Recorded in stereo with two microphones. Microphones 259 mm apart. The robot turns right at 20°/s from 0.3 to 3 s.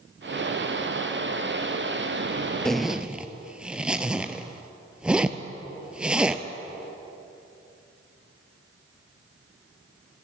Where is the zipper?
Centre (ahead or behind), 0.6 m; by 6.4 s 5° right (ahead or behind), 0.6 m.